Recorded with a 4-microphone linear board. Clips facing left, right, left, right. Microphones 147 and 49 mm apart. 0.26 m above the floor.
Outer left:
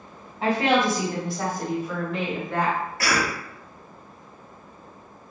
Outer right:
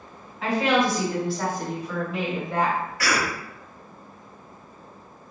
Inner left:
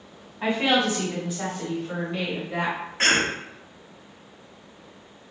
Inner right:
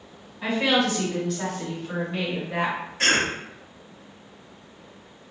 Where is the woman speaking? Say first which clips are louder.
Outer left 1 dB, even; 35° left (ahead or behind), 1.4 m; by 2.8 s 20° right (ahead or behind), 1.0 m.